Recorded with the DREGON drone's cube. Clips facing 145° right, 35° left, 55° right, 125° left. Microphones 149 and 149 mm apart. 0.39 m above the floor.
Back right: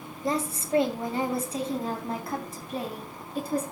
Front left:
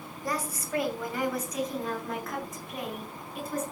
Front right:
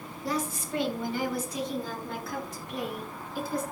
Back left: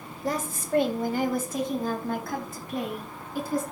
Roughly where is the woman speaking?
Behind left.